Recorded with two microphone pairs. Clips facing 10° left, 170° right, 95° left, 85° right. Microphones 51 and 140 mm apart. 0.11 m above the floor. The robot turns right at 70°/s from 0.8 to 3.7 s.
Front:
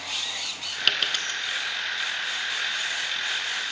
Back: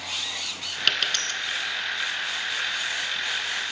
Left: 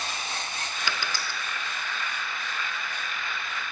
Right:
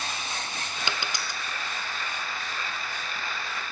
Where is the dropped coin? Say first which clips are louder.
Even, even; 75° right, 0.7 m; by 1.4 s 35° right, 0.7 m.